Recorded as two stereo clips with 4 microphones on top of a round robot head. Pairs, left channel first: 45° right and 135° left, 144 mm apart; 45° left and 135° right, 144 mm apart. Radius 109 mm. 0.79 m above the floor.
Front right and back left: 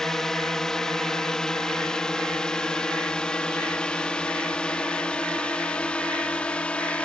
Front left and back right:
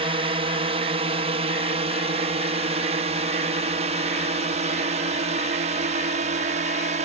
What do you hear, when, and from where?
0.0 s a drone: 130° right; by 7.0 s 125° right